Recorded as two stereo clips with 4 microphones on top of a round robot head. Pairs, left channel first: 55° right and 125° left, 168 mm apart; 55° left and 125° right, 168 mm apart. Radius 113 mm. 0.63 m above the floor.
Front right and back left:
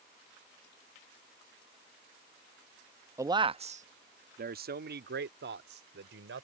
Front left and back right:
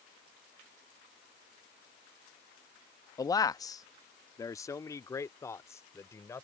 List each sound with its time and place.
3.2 s a man speaking: 85° left; by 6.5 s 130° left